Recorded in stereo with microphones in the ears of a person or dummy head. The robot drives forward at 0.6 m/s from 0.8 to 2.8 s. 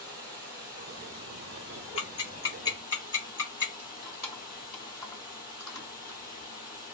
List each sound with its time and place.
0.0 s running water: 40° right (ahead or behind), 1.4 m
2.0 s ticking: 30° left (ahead or behind), 1.0 m; by 3.7 s 20° left (ahead or behind), 1.4 m
3.8 s keys jangling: centre (ahead or behind), 2 m